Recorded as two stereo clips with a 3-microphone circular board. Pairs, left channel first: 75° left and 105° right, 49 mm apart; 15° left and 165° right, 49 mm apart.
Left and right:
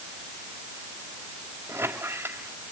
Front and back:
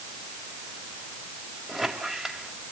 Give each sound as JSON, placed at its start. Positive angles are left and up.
{"t": 1.7, "sound": "a squeak", "azimuth_deg": -85, "distance_m": 2.0}